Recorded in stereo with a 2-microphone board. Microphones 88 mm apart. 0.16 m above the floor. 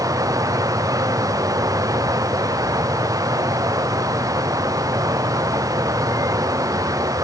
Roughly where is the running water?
Right.